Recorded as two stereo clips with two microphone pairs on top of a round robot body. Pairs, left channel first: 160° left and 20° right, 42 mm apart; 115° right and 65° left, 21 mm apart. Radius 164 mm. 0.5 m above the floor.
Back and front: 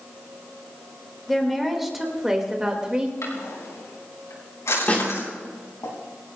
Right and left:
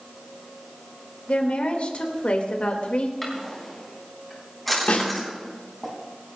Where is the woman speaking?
110° right, 3 m; by 3.1 s 85° right, 3 m.